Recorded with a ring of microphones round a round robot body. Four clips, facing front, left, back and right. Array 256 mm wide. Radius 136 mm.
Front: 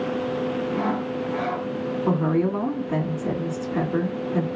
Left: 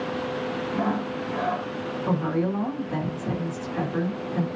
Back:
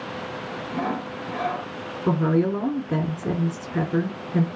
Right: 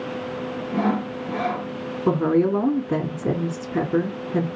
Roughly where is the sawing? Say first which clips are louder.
Right 5 dB, front 3 dB; right.